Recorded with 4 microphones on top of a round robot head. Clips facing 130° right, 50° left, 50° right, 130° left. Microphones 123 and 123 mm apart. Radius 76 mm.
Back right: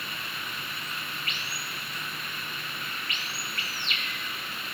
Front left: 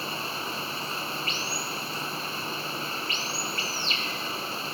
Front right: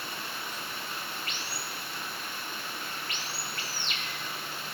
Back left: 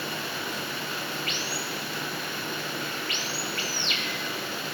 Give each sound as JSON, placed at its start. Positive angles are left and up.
{"t": 0.0, "sound": "running water", "azimuth_deg": 110}